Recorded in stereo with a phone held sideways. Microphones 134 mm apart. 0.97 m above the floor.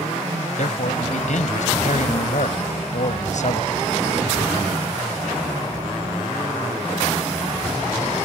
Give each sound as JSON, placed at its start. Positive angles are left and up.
{"t": 0.6, "sound": "a man speaking", "side_deg": 65}